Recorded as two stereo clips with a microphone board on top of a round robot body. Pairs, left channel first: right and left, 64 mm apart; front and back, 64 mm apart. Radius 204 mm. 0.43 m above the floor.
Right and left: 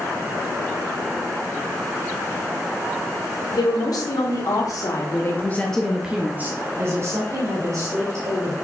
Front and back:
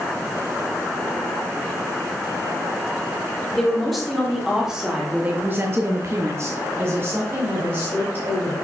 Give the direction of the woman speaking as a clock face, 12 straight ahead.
3 o'clock.